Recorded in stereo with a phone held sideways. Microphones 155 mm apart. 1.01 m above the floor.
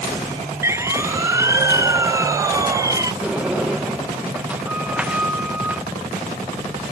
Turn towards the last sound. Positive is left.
turn(degrees=-10)  # may be behind; listen again after turning